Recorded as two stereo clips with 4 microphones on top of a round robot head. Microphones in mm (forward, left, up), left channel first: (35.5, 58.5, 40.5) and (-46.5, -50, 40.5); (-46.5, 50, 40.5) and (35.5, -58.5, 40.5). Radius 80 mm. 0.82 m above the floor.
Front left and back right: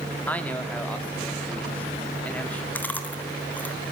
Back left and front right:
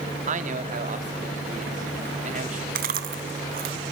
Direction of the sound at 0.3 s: 25° right.